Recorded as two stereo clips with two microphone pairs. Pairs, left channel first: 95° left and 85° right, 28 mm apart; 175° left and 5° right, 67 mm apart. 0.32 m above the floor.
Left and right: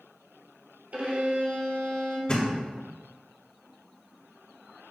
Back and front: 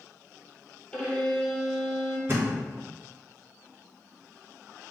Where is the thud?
45° left, 1.5 m.